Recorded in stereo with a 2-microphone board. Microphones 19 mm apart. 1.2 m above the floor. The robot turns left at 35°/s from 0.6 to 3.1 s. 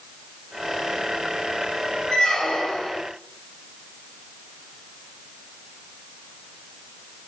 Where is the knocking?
I don't hear knocking.